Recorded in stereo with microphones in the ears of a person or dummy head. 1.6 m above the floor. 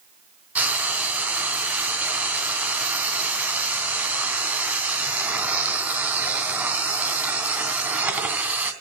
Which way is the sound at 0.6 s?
5° right (ahead or behind).